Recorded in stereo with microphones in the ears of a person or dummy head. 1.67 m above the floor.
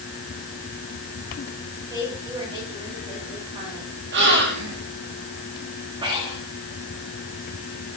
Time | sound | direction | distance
1.9 | a woman speaking | 30° right (ahead or behind) | 6.5 m
4.1 | a gasp | 65° right (ahead or behind) | 3.5 m
6.0 | breathing | 30° right (ahead or behind) | 3 m